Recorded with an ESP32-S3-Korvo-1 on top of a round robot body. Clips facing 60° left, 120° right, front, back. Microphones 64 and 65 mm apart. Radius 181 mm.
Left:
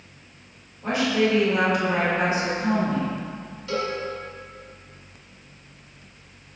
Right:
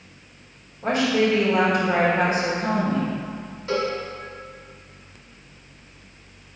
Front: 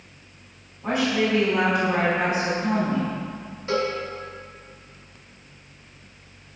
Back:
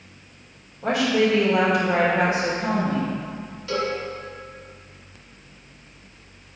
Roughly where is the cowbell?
Ahead right.